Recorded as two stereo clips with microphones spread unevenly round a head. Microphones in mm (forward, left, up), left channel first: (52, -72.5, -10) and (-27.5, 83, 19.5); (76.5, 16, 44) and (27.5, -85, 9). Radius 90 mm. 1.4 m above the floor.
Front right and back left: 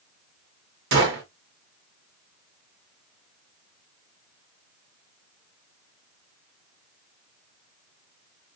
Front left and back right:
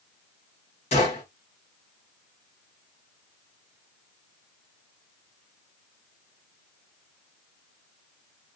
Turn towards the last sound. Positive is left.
turn(degrees=115)